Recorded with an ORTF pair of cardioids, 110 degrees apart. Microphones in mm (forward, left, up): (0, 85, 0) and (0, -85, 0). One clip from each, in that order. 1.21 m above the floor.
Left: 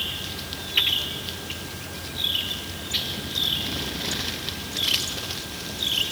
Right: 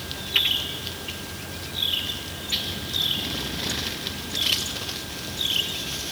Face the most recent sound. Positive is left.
No sound to turn to.